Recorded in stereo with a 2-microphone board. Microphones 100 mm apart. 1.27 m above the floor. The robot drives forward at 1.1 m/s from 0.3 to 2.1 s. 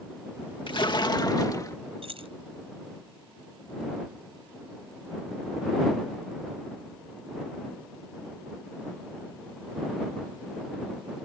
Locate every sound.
0.7 s a splash: 60° left (ahead or behind); by 1.8 s 35° left (ahead or behind)
2.0 s keys jangling: 70° right (ahead or behind)